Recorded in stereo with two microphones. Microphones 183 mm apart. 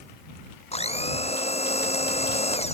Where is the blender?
35° left (ahead or behind).